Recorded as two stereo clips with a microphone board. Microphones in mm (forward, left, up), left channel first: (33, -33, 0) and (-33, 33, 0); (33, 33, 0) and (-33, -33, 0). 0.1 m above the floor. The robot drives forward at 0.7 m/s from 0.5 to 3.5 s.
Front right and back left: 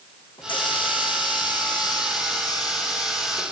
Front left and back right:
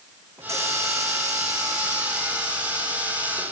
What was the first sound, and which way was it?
A hiss, 75° right.